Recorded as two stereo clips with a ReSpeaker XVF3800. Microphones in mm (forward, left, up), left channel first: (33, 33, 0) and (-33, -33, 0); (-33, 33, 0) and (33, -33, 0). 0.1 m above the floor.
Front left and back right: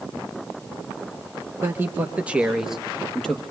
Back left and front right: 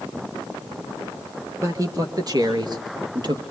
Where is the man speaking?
85° right, 1.8 m; by 3.4 s 35° right, 2.0 m.